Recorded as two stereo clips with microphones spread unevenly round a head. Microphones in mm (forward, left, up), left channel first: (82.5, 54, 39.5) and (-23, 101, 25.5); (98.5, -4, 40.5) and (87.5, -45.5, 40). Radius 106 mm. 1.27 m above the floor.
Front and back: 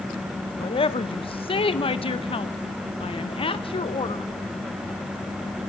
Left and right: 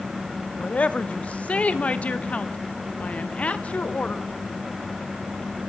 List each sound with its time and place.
0.6 s a woman speaking: 15° left, 1.8 m